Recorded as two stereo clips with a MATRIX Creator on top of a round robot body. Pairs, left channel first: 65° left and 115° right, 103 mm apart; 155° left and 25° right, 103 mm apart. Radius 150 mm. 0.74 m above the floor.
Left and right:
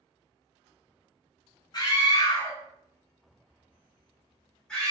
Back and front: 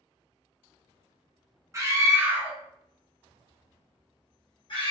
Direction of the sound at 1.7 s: 30° left.